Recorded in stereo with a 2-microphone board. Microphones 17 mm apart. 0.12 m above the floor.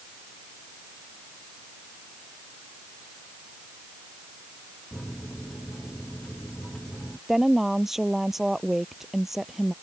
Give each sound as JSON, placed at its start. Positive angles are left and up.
{"t": 4.9, "sound": "a microwave", "side_deg": 45}
{"t": 7.3, "sound": "a woman speaking", "side_deg": -25}